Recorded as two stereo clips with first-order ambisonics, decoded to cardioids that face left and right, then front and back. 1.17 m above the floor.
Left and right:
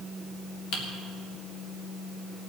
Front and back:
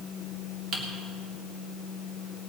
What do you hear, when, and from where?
0.7 s typing on a keyboard: 120° left, 3 m